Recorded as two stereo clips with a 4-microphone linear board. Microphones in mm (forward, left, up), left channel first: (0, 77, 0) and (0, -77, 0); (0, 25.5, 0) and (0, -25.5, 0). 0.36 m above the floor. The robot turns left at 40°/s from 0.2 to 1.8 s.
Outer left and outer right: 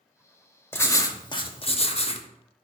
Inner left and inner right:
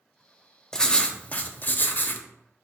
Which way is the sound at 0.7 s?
160° left.